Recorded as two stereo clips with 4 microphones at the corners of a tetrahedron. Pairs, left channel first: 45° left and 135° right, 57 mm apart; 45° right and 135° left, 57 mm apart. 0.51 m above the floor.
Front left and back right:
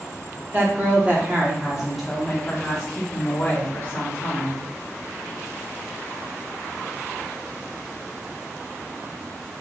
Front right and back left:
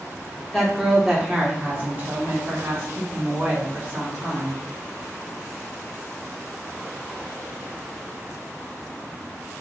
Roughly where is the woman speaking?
Behind right.